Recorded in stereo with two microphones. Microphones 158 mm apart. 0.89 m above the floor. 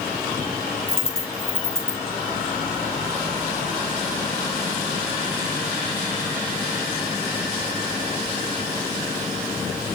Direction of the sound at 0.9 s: 40° left (ahead or behind).